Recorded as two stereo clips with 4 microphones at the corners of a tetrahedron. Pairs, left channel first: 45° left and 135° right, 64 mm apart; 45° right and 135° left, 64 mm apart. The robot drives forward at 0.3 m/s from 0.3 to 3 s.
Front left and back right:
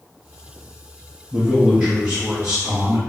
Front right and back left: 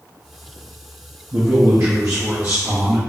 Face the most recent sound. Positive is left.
turn(degrees=175)